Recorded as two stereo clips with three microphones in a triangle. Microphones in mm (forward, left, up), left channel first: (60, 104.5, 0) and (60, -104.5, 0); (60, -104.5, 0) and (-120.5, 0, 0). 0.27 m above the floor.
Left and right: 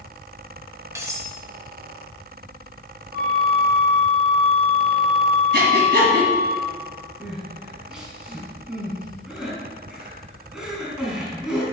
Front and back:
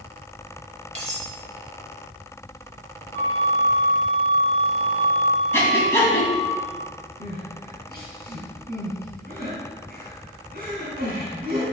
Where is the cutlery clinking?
160° right, 1.0 m.